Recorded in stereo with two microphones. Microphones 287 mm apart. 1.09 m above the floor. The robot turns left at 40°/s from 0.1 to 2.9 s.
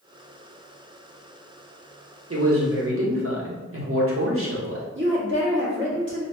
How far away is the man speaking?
About 0.9 m.